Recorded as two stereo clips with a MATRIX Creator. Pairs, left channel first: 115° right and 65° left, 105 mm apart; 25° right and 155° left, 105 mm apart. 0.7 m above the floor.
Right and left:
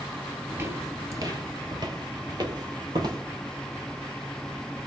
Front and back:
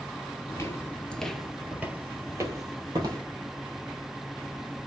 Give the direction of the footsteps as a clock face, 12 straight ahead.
12 o'clock.